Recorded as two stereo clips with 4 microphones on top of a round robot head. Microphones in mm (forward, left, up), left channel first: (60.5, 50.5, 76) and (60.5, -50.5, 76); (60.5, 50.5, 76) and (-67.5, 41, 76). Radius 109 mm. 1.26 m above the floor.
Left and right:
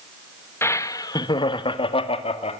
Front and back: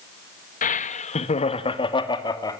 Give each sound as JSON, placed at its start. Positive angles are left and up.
{"t": 0.6, "sound": "laughter", "azimuth_deg": 25, "distance_m": 1.6}